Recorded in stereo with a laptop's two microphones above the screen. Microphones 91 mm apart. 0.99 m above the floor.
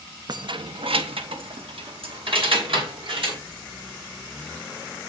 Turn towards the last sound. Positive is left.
turn(degrees=-65)  # may be behind; listen again after turning